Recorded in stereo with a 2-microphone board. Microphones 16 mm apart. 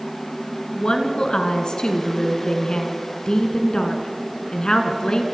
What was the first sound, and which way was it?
A woman speaking, 65° left (ahead or behind).